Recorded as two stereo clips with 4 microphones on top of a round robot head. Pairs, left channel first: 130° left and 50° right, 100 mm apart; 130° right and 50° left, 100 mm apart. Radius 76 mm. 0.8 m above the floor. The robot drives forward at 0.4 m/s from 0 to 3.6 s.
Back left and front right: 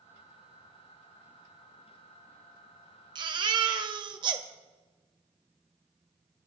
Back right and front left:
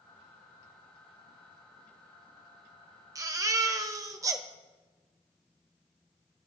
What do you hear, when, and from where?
3.1 s a baby crying: 5° right, 1.4 m